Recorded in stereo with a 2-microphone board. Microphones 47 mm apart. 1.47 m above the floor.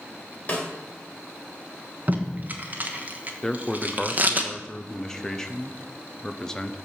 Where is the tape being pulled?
35° right (ahead or behind), 1.1 m.